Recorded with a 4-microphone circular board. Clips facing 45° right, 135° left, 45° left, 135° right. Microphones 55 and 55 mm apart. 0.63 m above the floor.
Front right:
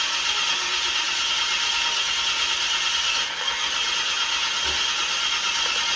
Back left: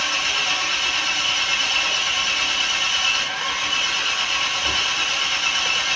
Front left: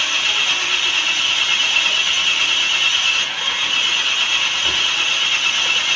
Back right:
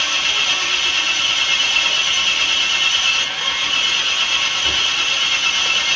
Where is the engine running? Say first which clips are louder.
Back left 3 dB, even; 125° left, 2.5 m.